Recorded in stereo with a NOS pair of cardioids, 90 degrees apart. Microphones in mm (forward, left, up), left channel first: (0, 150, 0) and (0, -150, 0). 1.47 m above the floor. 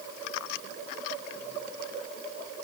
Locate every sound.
Only background noise.